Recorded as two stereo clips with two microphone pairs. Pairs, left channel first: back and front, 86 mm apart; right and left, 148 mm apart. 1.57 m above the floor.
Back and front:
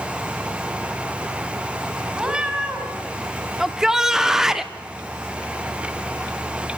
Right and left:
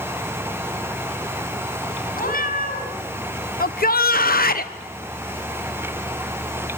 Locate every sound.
2.1 s a cat meowing: 80° right, 5 m
3.6 s a shout: 85° right, 1.2 m